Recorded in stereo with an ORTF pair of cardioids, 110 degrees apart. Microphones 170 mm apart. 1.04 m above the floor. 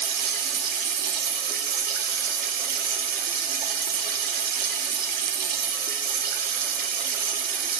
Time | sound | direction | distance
0.0 | running water | 60° right | 1.3 m